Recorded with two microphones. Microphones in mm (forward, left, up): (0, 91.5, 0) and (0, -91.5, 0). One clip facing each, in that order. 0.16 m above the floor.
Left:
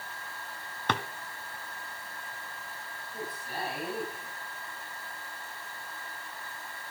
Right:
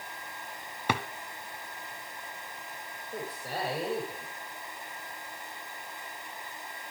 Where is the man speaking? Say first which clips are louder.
Right 3 dB; 65° right (ahead or behind), 8 m.